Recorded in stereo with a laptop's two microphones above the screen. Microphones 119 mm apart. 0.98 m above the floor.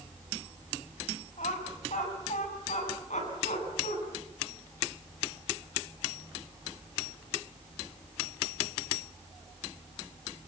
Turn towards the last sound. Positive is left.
turn(degrees=90)